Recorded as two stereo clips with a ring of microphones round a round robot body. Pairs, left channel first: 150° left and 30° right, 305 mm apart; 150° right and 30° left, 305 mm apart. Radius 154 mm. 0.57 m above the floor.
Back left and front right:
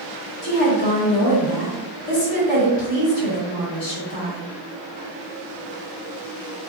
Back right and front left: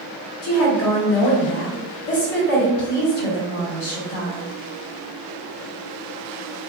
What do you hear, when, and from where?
0.4 s a woman speaking: 165° right, 1.8 m